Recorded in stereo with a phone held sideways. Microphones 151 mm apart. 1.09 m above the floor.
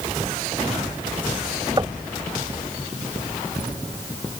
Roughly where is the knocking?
Right.